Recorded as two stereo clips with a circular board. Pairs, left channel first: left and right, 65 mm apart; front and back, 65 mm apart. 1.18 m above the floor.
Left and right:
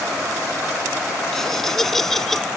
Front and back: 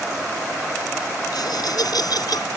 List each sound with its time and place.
1.3 s laughter: 5° left